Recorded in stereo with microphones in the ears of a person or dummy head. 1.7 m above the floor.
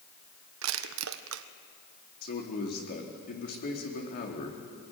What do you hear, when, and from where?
0.6 s crushing: 80° right, 1.1 m
2.2 s a man speaking: 55° left (ahead or behind), 4 m